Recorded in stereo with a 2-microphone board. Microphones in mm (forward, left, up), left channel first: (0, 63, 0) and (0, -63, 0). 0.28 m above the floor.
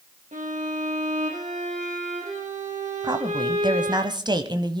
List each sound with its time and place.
0.3 s a violin: 80° right, 4.5 m
3.0 s a woman speaking: 35° right (ahead or behind), 1.3 m